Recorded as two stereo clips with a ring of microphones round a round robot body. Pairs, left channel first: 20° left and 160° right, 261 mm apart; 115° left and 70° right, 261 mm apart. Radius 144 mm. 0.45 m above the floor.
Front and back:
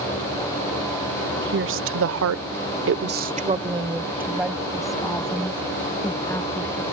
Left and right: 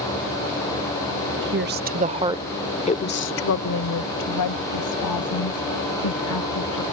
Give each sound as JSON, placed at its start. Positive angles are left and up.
{"t": 1.4, "sound": "a woman speaking", "azimuth_deg": -110}